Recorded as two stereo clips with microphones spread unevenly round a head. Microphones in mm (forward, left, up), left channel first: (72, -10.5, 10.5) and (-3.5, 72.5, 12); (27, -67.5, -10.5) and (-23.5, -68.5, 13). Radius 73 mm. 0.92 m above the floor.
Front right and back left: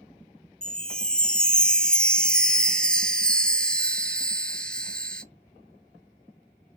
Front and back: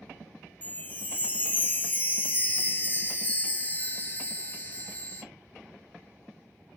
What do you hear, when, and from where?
0.6 s a chime: 35° left, 0.6 m